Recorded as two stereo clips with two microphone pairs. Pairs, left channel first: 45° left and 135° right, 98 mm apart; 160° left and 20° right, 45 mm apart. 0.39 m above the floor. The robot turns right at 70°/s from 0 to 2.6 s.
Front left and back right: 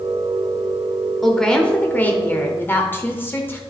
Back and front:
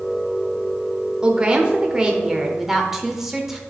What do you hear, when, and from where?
1.2 s a woman speaking: 40° right, 0.8 m; by 3.6 s 55° left, 0.8 m